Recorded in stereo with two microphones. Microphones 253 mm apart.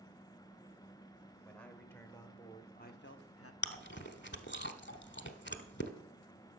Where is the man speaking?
5° left (ahead or behind), 2 m; by 3.5 s 60° left (ahead or behind), 0.9 m.